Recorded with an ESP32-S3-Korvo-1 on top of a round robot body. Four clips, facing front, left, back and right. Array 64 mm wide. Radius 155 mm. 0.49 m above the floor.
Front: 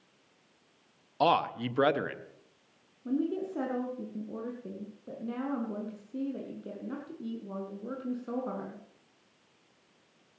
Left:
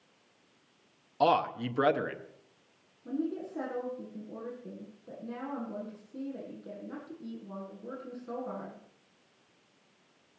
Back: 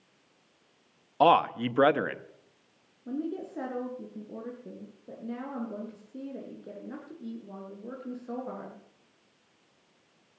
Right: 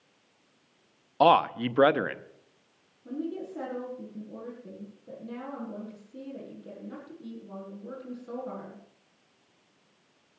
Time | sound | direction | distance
1.2 | a man speaking | 120° right | 0.8 m
3.0 | a woman speaking | 5° left | 8.5 m